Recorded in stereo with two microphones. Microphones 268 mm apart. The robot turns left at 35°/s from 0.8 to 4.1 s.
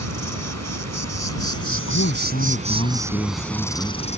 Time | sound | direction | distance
0.0 | an insect | 90° right | ?
1.7 | a man speaking | 70° left | ?